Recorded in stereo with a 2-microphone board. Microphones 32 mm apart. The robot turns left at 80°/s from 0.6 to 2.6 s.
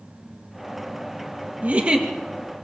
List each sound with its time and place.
1.6 s a giggle: 115° right, 2.5 m; by 2.1 s 155° right, 2.5 m